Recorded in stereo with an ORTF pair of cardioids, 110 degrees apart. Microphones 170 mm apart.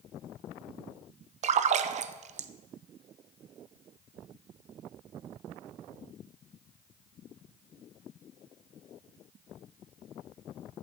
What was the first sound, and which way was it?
A splash, 45° right.